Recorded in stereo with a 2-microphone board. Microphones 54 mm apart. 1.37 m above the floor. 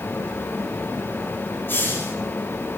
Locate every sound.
1.7 s a hiss: 45° left (ahead or behind), 6 m